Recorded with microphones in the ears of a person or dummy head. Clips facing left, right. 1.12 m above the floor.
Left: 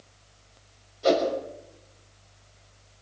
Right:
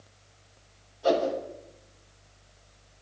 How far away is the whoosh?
About 6.5 m.